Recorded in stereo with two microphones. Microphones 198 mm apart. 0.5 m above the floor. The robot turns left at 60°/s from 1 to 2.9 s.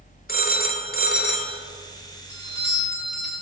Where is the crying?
No crying in this recording.